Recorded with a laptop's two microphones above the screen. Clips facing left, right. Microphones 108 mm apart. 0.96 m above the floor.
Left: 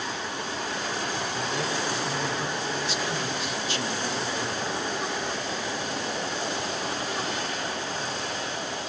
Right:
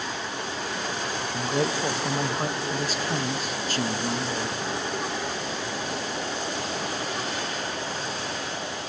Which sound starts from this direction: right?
A man speaking, at 1.3 s.